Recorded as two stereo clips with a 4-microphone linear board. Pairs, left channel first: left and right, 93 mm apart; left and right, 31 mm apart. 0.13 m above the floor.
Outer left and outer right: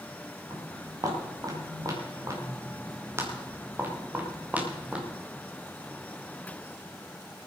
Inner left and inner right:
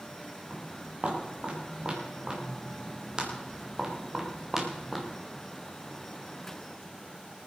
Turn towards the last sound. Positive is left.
turn(degrees=-10)  # may be behind; listen again after turning